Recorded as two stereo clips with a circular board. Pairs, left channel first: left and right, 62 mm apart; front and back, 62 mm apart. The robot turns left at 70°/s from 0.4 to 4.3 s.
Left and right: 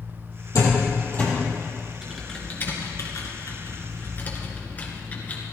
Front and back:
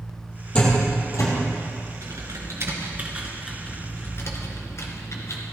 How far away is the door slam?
About 4.5 m.